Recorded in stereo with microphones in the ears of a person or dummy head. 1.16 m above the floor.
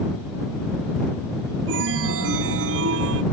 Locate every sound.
1.7 s a chime: 75° right (ahead or behind)